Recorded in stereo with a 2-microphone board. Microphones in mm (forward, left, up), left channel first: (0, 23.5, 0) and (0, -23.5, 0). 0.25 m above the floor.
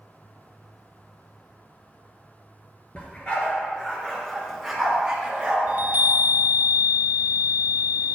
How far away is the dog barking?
About 1.8 m.